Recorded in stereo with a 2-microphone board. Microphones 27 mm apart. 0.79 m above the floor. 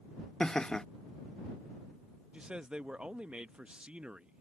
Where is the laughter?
30° left (ahead or behind).